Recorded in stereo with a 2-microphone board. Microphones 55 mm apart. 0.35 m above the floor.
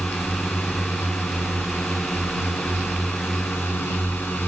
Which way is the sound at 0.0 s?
50° left (ahead or behind).